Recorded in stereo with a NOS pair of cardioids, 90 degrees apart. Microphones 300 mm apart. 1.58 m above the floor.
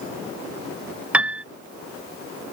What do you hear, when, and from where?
1.1 s a piano: 5° right